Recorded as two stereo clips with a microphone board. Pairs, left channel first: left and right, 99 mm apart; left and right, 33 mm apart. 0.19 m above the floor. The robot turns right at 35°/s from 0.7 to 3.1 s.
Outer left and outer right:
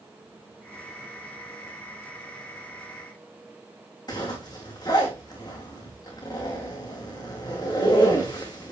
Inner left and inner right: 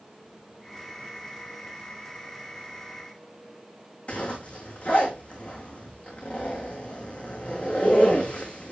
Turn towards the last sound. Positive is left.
turn(degrees=45)  # may be behind; listen again after turning